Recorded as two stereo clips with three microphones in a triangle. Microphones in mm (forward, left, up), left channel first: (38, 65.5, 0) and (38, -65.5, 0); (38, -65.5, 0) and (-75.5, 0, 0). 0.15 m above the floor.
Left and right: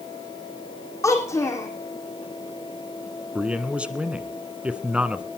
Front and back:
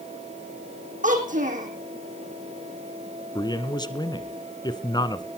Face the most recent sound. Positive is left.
turn(degrees=-15)